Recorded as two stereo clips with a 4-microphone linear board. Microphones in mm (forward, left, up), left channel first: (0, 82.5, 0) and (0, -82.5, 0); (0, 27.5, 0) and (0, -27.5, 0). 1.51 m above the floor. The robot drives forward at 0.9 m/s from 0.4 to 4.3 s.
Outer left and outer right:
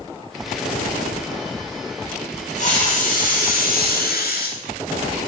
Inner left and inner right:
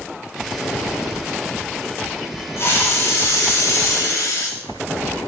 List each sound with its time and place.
2.6 s a hiss: 50° left (ahead or behind), 3.5 m; by 4.6 s 80° left, 2.5 m